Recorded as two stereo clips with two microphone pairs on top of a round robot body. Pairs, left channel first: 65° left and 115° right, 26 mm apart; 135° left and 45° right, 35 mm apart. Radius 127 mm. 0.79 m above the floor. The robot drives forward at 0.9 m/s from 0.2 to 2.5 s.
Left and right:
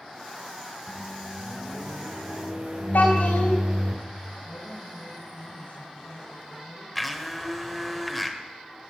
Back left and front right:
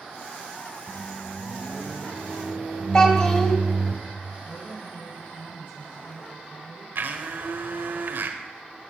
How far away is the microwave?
About 4 m.